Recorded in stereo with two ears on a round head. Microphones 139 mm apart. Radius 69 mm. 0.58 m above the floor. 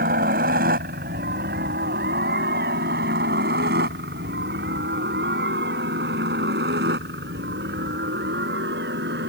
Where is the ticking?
No ticking in this recording.